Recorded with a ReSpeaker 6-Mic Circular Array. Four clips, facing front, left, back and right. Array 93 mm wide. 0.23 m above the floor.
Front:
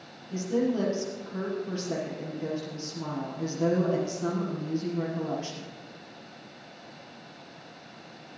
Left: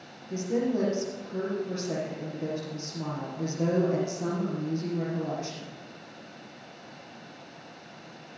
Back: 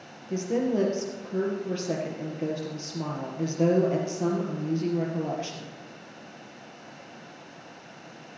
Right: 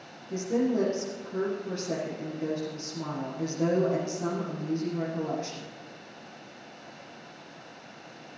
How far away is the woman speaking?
About 4.5 m.